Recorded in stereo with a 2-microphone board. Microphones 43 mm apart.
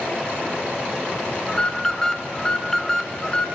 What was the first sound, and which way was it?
An alarm, 15° left (ahead or behind).